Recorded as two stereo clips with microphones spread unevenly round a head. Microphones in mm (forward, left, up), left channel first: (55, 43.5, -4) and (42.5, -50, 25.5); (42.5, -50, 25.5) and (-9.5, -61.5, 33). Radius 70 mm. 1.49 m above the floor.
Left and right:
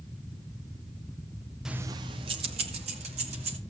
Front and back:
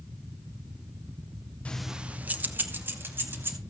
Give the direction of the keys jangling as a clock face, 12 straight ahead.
2 o'clock.